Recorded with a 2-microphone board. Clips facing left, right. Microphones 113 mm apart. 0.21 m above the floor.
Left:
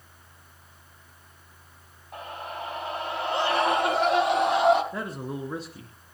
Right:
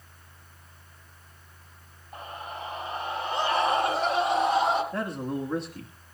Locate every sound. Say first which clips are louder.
2.1 s a scream: left 2 dB; 65° left (ahead or behind), 6.5 m; by 4.8 s 75° left (ahead or behind), 8 m
4.9 s a man speaking: right 3 dB; 5° left (ahead or behind), 2 m